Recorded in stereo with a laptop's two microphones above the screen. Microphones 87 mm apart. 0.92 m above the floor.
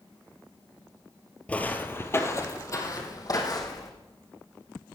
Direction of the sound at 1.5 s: 15° left (ahead or behind).